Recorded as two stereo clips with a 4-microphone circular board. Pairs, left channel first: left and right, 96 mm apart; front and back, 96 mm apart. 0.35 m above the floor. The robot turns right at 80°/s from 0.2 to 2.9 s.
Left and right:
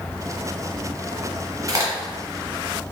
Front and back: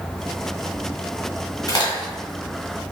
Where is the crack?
40° right, 1.3 m; by 2.9 s 55° left, 1.3 m.